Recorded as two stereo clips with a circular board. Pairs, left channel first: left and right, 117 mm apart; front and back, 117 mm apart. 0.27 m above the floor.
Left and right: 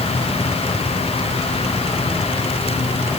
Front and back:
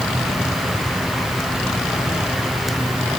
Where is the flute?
No flute in this recording.